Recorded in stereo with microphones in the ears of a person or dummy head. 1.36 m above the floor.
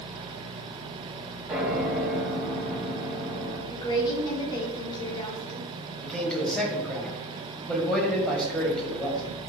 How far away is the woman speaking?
About 3.5 m.